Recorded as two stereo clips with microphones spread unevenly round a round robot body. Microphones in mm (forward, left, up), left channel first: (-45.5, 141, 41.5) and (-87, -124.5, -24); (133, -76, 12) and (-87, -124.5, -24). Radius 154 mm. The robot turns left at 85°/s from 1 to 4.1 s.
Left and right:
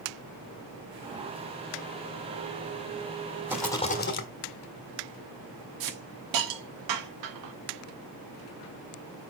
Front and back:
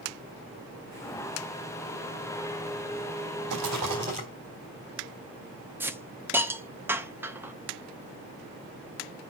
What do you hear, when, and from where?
3.5 s a rattle: straight behind, 1.4 m; by 4.3 s 125° left, 1.4 m
5.8 s a hiss: 85° right, 0.9 m